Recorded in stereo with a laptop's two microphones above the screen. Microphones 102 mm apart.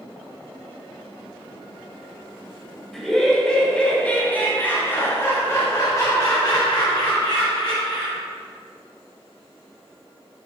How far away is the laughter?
About 3 m.